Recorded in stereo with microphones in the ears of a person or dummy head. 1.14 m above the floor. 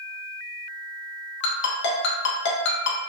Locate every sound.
1.4 s a ringtone: 65° left (ahead or behind), 0.6 m